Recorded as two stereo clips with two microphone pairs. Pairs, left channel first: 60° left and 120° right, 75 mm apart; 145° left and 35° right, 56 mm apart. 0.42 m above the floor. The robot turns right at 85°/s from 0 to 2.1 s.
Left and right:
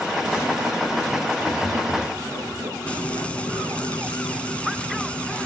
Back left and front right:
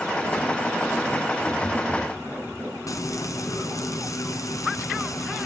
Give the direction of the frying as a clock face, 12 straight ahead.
8 o'clock.